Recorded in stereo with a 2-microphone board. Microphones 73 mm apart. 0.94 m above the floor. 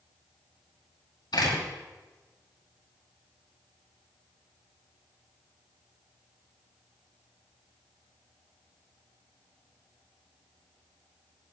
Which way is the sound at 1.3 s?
75° left (ahead or behind).